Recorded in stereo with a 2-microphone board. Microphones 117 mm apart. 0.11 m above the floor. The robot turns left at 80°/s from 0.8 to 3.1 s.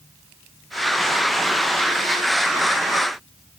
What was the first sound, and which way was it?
Only background noise.